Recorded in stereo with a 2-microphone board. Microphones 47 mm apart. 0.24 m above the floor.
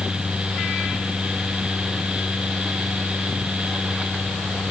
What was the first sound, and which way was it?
Only background noise.